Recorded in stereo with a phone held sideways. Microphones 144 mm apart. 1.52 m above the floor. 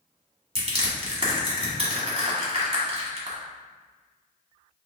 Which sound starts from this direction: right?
Crushing, at 0.6 s.